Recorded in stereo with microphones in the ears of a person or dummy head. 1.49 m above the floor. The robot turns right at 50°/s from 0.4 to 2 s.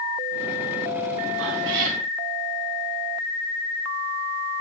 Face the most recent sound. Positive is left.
turn(degrees=-75)